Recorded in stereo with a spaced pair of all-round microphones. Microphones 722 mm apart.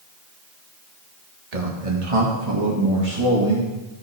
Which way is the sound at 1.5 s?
60° right (ahead or behind).